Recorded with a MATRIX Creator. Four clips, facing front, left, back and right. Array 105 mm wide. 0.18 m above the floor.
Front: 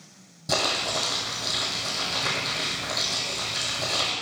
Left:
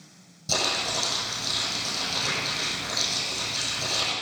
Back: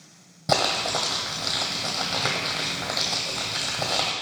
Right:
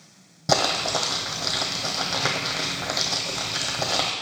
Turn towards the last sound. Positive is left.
turn(degrees=-120)